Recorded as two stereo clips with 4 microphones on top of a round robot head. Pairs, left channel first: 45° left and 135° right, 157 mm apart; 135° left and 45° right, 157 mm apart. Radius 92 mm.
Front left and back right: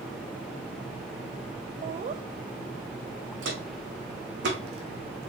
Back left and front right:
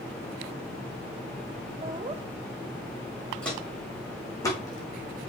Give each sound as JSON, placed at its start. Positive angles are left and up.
{"t": 1.8, "sound": "laughter", "azimuth_deg": -100, "distance_m": 0.6}
{"t": 3.4, "sound": "footsteps", "azimuth_deg": -145, "distance_m": 3.0}